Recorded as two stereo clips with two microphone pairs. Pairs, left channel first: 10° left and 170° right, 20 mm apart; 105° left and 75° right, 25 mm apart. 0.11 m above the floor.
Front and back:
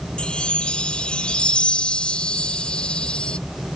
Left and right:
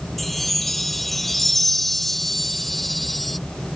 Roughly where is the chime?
Ahead.